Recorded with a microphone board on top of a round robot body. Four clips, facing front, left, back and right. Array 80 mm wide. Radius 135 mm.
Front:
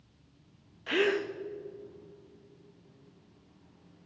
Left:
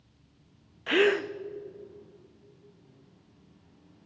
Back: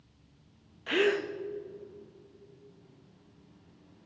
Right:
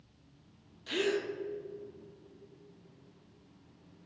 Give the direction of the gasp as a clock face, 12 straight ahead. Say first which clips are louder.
Left 8 dB, back 1 dB; 9 o'clock.